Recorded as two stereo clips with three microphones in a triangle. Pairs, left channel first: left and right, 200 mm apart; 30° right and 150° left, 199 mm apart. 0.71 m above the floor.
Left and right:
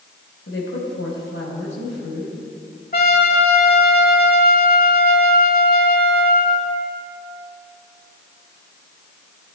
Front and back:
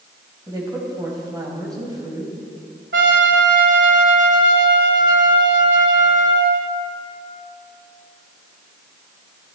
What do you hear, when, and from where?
0.5 s a woman speaking: 80° left, 3.5 m
2.9 s a trumpet: 130° left, 1.7 m